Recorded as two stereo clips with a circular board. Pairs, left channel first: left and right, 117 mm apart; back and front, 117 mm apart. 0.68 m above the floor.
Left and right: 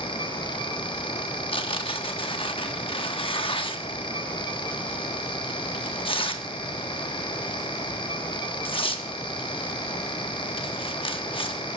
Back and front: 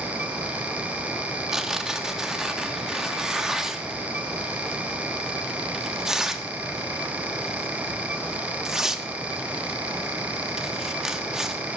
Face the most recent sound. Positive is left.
turn(degrees=85)